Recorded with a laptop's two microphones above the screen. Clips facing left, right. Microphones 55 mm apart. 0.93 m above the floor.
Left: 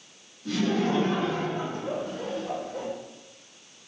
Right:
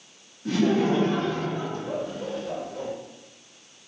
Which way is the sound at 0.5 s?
35° right (ahead or behind).